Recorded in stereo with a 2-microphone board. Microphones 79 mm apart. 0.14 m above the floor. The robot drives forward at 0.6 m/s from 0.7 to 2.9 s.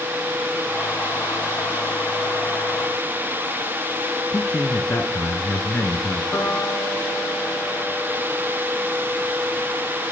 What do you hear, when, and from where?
4.3 s a man speaking: 35° left (ahead or behind), 1.5 m
6.3 s a piano: 30° left (ahead or behind), 5 m